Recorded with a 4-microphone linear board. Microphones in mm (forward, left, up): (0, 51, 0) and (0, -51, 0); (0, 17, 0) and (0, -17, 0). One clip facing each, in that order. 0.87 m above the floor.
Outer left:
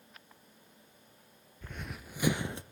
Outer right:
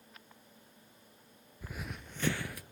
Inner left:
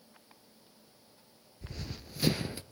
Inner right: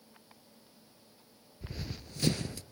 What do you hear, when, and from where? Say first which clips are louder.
1.6 s running footsteps: even, inner right 1 dB; 10° right (ahead or behind), 1.0 m; by 2.6 s 25° left (ahead or behind), 0.9 m